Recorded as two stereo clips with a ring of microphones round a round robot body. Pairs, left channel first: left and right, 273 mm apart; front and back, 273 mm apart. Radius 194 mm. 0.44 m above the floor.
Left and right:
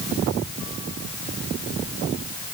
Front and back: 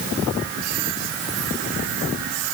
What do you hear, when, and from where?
Only background noise.